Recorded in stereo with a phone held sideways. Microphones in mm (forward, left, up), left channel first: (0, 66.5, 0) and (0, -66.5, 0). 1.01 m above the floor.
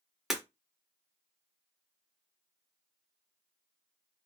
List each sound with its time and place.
0.3 s breaking glass: centre (ahead or behind), 0.9 m